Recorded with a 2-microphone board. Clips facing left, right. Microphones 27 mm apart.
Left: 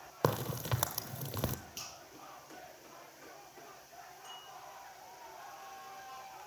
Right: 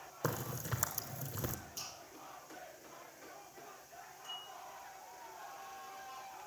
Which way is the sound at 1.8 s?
40° left (ahead or behind).